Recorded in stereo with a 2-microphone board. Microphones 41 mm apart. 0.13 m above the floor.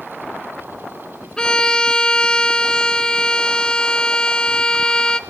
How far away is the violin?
About 0.6 m.